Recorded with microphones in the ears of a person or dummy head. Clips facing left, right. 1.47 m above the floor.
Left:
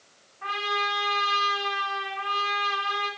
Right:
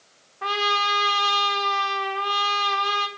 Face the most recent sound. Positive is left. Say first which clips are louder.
# right 5 dB
turn(degrees=-65)  # may be behind; listen again after turning